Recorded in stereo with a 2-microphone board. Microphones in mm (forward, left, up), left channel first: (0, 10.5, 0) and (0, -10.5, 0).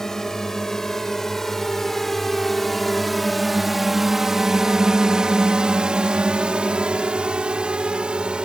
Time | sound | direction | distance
0.0 | a drone | 20° left (ahead or behind) | ?